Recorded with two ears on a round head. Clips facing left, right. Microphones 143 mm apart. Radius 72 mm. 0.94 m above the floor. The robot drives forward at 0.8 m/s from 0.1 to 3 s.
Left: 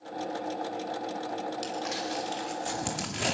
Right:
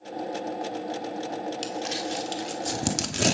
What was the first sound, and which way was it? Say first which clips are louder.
Crumpling: right 2 dB; 30° right (ahead or behind).